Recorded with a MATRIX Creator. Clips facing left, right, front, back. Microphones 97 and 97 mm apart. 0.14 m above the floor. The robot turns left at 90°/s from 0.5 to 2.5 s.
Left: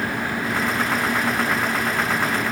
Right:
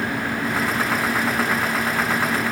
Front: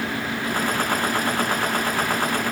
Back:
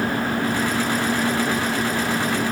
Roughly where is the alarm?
I don't hear an alarm.